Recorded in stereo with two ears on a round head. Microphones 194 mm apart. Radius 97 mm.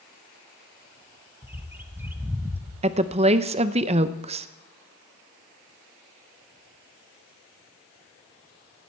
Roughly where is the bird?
Centre.